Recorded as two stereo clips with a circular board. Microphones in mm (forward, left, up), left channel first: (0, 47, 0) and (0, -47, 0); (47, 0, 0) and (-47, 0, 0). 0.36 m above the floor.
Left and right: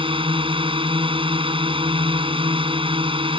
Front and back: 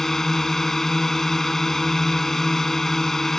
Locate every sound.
0.0 s a drone: 85° right